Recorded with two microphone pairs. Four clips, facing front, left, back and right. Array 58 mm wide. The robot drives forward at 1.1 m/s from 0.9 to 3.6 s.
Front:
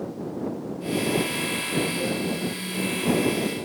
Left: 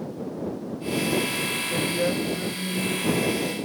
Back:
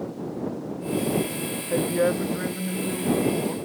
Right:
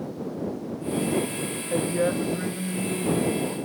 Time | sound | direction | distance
1.7 | a woman speaking | 160° right | 2 m